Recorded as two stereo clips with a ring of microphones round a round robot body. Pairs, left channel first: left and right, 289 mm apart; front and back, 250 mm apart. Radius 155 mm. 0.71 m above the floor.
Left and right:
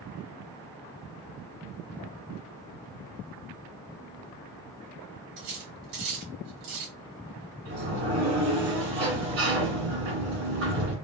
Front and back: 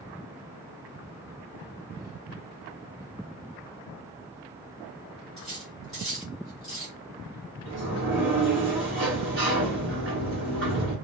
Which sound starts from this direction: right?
Cutlery clinking, at 5.4 s.